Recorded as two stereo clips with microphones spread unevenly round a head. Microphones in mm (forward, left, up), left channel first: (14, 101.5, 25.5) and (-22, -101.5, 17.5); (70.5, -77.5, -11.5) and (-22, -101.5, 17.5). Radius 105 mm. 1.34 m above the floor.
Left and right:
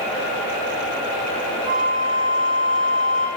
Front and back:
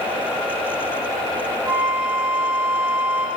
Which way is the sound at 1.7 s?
135° right.